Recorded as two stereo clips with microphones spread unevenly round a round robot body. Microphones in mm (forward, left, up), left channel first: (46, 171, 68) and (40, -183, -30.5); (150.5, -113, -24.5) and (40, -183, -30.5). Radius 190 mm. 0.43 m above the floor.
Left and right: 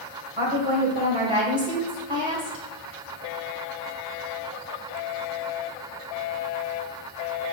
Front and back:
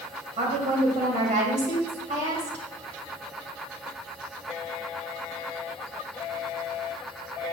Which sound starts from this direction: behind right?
A woman speaking, at 0.4 s.